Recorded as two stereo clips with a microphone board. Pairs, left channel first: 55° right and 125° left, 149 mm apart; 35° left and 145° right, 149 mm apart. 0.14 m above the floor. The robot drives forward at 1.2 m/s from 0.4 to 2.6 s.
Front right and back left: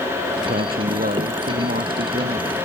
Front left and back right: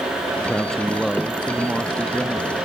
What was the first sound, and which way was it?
A man speaking, 120° left.